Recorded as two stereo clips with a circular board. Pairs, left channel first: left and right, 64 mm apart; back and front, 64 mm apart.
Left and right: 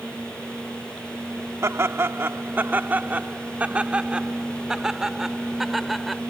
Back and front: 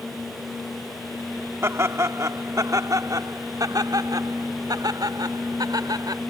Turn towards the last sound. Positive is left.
turn(degrees=0)